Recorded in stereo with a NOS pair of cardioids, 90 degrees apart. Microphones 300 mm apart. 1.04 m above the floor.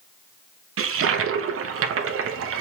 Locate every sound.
0.8 s a toilet flushing: 45° right, 0.6 m